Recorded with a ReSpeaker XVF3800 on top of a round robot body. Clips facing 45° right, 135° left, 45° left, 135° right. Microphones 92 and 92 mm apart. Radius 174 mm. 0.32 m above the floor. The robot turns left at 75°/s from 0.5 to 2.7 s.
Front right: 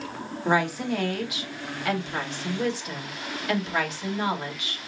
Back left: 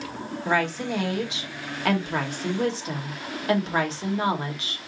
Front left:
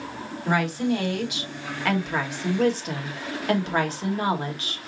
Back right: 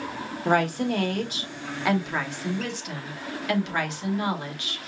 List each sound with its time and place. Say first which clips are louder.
0.5 s a woman speaking: front right 1 dB, back right 1 dB; 110° right, 2 m; by 4.8 s 85° left, 2 m